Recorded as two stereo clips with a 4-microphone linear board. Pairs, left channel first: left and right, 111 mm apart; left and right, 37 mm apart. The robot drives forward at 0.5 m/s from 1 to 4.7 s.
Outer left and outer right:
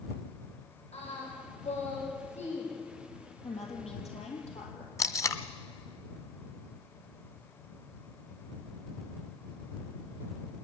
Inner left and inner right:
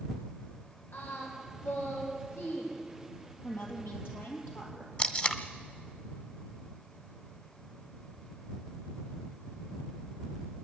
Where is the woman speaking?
75° left (ahead or behind), 4 m.